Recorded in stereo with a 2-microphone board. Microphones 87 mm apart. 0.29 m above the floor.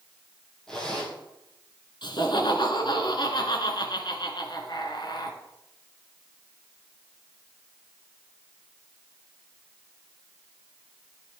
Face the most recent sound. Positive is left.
turn(degrees=65)  # may be behind; listen again after turning